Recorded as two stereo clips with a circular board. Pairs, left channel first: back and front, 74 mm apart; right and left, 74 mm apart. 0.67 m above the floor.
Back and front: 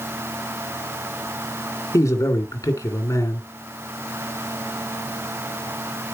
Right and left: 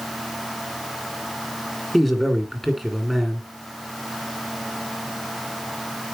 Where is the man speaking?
175° right, 1.9 m.